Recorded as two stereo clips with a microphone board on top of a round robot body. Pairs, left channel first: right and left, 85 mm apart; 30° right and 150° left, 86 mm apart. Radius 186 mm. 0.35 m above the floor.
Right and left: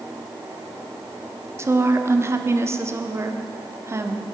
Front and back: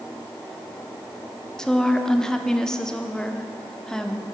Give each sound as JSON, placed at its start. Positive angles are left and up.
{"t": 1.6, "sound": "a woman speaking", "azimuth_deg": 50, "distance_m": 1.2}